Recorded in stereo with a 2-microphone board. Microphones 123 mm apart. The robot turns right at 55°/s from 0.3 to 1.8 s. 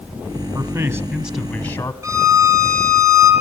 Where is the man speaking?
45° right, 2 m; by 1.9 s 25° left, 2 m.